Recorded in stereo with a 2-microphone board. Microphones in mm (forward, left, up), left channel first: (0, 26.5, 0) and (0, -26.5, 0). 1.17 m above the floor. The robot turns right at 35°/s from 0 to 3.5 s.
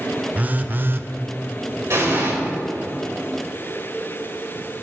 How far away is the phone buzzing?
About 0.6 m.